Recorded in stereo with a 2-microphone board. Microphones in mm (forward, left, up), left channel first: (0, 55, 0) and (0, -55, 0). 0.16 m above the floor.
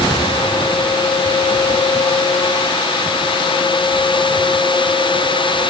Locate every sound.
Only background noise.